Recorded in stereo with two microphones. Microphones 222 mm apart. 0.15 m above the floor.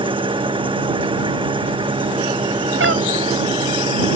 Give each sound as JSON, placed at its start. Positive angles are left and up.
{"t": 0.0, "sound": "an engine running", "side_deg": -25}
{"t": 2.8, "sound": "a cat meowing", "side_deg": -65}